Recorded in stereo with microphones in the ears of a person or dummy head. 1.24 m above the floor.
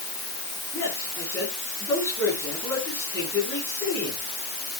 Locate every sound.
0.7 s a man speaking: 10° left (ahead or behind), 9 m